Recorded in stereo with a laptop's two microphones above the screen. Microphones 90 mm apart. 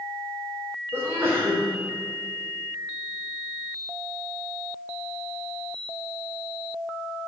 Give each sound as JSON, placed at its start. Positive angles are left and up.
{"t": 0.9, "sound": "a sneeze", "side_deg": -30, "distance_m": 3.5}